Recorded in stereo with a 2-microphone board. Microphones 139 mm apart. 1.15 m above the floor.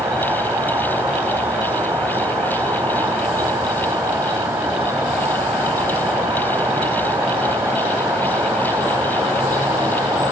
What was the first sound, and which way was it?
An insect, 15° right (ahead or behind).